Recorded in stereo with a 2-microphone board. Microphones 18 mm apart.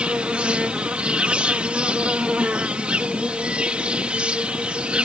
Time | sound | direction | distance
0.0 | an insect | 70° right (ahead or behind) | ?